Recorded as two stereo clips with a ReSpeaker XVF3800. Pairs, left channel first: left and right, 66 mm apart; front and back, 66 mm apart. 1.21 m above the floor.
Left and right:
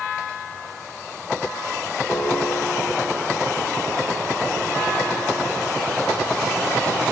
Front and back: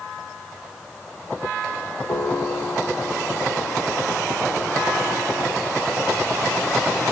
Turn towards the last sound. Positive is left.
turn(degrees=25)